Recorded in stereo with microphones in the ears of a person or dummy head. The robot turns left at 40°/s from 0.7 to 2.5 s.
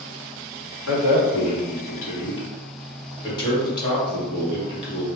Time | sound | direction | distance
0.9 | a man speaking | 85° left | 2 m